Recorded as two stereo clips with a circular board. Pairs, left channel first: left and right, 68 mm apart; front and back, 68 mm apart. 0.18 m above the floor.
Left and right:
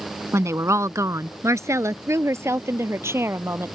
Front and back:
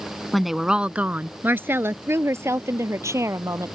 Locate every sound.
0.3 s a woman speaking: 85° right; by 3.8 s 140° right